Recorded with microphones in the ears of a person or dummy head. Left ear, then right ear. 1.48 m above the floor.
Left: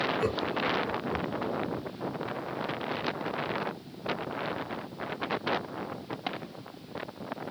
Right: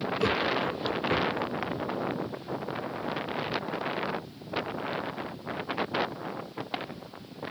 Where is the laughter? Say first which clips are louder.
Right 3 dB; centre (ahead or behind), 0.9 m; by 1.5 s 65° right (ahead or behind), 0.7 m.